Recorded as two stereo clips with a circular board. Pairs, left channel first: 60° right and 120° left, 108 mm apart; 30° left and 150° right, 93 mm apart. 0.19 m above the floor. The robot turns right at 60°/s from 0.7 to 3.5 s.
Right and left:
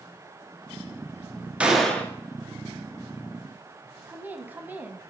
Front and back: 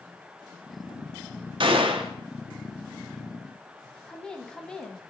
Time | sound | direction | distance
1.6 | a gunshot | 160° right | 1.1 m
4.1 | a woman speaking | 90° left | 1.0 m